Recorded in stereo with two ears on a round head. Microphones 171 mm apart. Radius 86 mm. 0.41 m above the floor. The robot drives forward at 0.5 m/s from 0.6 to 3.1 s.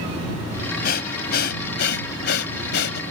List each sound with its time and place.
0.8 s breathing: 50° left (ahead or behind); by 3.0 s 60° left (ahead or behind)